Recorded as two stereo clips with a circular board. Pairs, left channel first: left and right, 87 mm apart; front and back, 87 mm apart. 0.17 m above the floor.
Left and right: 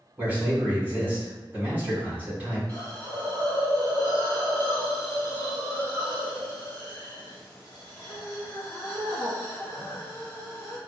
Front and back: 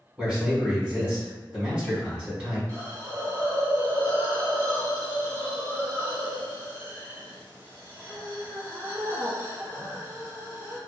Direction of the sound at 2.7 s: 145° left.